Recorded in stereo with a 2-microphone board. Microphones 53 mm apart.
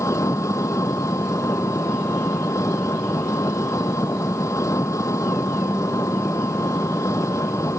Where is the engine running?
75° left (ahead or behind).